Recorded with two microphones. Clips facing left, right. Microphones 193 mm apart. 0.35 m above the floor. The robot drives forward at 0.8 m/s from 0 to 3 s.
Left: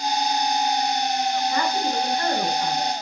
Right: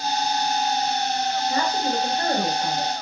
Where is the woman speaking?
40° right (ahead or behind), 2.5 m; by 2.9 s 30° right (ahead or behind), 3.5 m.